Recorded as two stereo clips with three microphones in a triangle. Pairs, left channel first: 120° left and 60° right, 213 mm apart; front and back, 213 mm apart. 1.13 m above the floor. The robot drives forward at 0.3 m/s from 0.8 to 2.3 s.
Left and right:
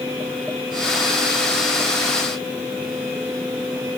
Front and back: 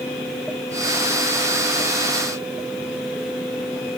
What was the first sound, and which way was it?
Only background noise.